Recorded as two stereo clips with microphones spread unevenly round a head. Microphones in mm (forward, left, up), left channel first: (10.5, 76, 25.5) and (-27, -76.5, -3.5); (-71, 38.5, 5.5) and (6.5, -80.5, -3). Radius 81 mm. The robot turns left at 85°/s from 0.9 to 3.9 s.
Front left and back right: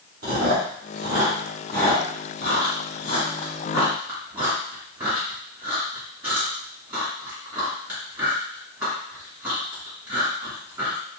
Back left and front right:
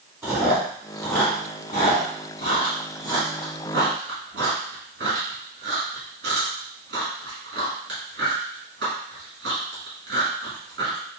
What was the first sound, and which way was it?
Chewing, 130° right.